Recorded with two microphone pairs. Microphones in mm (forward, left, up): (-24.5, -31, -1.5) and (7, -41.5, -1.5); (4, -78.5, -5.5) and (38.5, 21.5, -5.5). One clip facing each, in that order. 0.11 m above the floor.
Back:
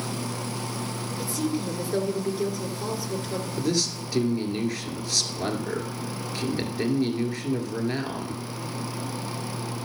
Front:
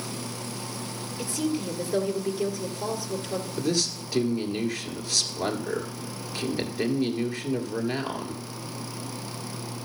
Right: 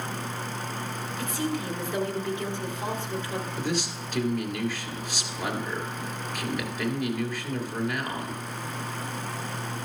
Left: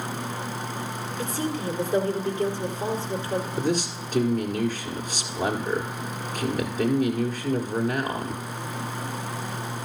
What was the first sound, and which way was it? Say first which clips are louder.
A woman speaking: even, left 1 dB; 80° left.